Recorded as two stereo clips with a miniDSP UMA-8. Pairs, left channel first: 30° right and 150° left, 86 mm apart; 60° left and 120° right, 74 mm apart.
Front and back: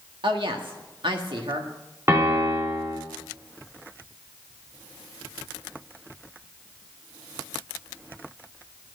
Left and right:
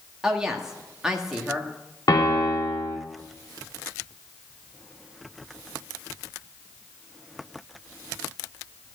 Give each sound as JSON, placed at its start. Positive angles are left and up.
{"t": 0.2, "sound": "a woman speaking", "azimuth_deg": 160, "distance_m": 1.5}
{"t": 2.1, "sound": "a piano", "azimuth_deg": 90, "distance_m": 3.0}